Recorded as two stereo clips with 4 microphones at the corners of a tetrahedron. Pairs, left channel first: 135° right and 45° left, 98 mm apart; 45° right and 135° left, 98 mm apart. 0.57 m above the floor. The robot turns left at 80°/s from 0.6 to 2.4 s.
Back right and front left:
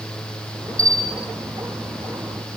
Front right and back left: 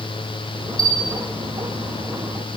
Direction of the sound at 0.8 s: 155° left.